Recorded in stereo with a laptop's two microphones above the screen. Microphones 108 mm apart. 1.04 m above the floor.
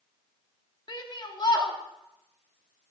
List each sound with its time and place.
0.9 s a shout: 45° left (ahead or behind), 1.7 m